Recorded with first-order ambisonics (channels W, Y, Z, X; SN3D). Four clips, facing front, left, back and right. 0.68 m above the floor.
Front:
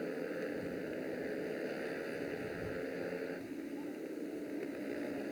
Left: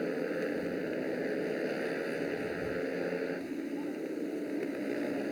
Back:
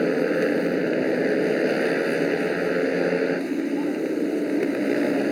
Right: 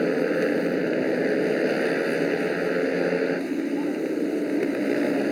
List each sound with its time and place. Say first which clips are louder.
0.0 s a motorcycle: right 11 dB, back 18 dB; 145° right